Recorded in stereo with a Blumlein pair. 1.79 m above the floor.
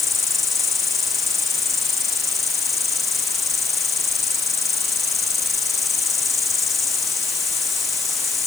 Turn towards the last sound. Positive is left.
turn(degrees=15)